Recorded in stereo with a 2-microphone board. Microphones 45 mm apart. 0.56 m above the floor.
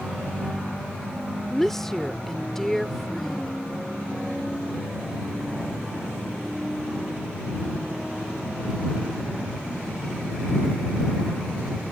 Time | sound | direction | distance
1.5 | a woman speaking | 5° left (ahead or behind) | ?